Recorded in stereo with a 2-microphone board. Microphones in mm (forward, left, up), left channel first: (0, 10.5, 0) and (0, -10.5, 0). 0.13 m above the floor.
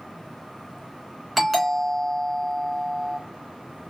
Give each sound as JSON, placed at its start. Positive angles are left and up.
{"t": 1.4, "sound": "a doorbell", "side_deg": 0, "distance_m": 1.8}